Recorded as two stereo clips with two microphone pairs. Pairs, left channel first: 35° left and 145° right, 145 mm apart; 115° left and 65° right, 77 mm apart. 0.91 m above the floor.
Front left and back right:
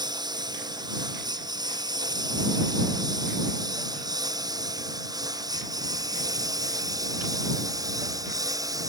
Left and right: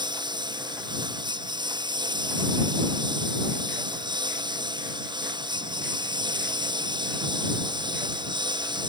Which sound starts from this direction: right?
A lawn mower, at 0.0 s.